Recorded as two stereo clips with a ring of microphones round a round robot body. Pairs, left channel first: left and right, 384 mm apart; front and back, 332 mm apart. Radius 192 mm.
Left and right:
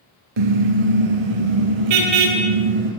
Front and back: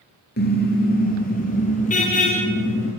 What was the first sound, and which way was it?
A car horn, 65° right.